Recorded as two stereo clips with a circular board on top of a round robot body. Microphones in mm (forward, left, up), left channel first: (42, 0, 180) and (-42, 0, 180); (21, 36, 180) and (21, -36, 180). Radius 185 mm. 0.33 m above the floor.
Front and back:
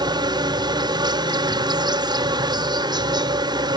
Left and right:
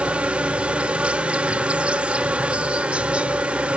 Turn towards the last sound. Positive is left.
turn(degrees=-160)